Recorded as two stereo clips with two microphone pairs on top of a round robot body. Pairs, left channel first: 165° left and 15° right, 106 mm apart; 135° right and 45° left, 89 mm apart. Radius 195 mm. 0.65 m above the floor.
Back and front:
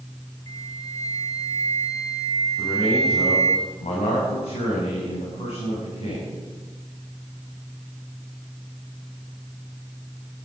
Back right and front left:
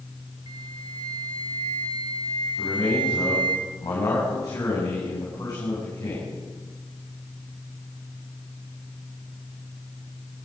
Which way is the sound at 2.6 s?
175° left.